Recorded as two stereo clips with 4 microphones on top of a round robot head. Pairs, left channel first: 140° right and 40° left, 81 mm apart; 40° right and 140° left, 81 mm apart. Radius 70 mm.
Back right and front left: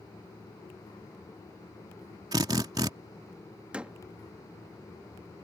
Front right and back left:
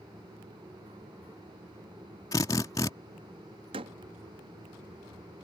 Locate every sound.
2.3 s a drill: straight ahead
3.7 s a door slam: 120° left